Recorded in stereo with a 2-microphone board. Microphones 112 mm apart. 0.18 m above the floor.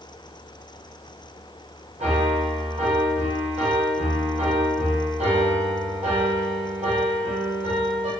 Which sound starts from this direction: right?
A piano, at 2.0 s.